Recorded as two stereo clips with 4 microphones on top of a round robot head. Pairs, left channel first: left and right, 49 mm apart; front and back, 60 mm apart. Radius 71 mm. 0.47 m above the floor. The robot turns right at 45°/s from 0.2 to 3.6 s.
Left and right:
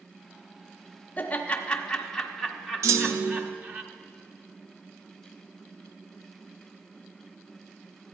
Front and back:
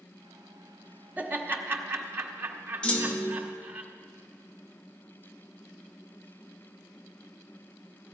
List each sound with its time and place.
1.2 s laughter: 125° left, 1.5 m; by 3.8 s 125° right, 1.5 m
2.8 s a clunk: 75° right, 0.7 m; by 3.5 s 50° right, 0.7 m